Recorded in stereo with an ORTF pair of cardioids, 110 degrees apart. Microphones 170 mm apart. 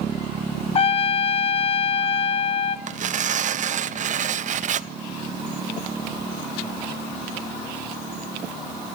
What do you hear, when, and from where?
0.8 s a trumpet: 35° left, 1.5 m
2.9 s tearing paper: 45° right, 1.1 m